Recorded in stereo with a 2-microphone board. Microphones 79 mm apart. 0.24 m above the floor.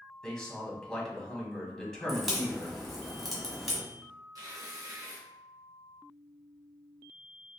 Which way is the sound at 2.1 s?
Centre (ahead or behind).